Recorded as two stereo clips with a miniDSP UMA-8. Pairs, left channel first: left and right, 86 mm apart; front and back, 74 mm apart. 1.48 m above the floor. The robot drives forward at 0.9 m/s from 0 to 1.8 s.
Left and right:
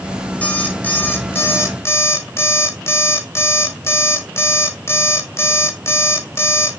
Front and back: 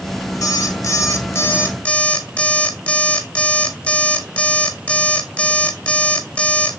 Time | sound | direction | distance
0.4 | an alarm clock | 20° left | 1.9 m